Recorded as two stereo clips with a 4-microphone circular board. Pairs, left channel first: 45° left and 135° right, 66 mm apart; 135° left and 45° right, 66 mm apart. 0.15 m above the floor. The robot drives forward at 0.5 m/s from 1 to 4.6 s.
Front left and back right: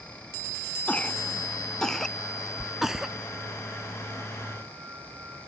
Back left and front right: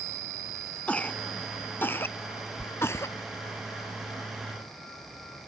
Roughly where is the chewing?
Behind.